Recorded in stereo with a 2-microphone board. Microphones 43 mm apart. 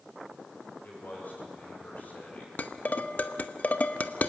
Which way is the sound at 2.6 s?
35° left (ahead or behind).